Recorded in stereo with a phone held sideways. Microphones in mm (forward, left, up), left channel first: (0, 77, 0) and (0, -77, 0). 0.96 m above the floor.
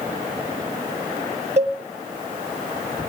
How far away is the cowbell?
About 1.7 m.